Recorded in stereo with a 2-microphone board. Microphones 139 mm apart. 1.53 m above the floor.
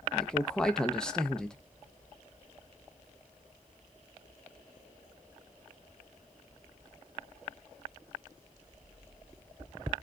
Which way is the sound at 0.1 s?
5° left (ahead or behind).